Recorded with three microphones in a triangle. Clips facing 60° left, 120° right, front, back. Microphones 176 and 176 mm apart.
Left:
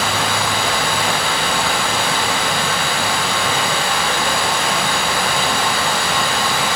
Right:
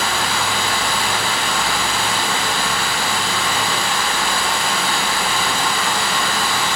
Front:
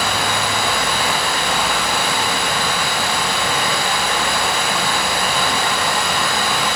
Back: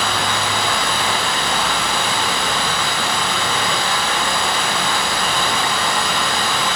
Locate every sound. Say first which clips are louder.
0.0 s running water: left 2 dB, front 1 dB; 80° left, 1.1 m